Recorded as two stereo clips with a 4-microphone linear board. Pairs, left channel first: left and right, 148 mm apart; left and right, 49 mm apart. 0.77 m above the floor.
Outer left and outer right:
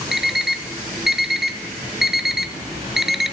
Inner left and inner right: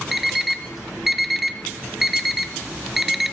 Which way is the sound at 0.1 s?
5° right (ahead or behind).